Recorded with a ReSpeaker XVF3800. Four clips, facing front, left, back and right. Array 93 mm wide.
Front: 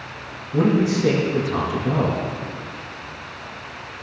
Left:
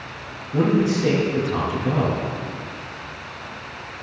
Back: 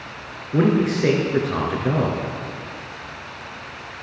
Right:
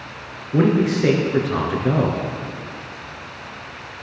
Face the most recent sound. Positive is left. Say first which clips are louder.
# right 2 dB, even
turn(degrees=-135)